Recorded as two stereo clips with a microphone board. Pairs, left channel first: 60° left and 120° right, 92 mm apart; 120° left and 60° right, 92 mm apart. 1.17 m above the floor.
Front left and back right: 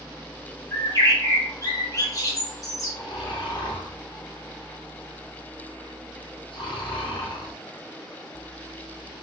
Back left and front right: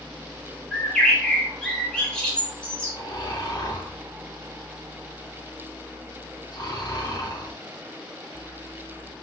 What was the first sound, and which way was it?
A bird, 45° left.